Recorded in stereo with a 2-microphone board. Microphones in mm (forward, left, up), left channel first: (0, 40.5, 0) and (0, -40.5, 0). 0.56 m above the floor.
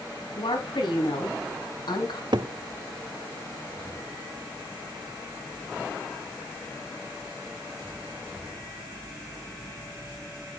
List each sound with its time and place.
0.4 s a woman speaking: 75° left (ahead or behind), 3.5 m; by 2.2 s 65° left (ahead or behind), 3.5 m
2.3 s a cupboard door: 65° right (ahead or behind), 0.5 m